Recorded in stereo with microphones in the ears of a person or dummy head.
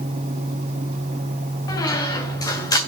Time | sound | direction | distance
1.7 | a squeak | 20° left (ahead or behind) | 2.5 m